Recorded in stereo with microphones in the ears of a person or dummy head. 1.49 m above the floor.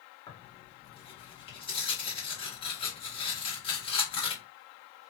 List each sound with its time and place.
0.3 s tearing paper: 30° left (ahead or behind), 1.5 m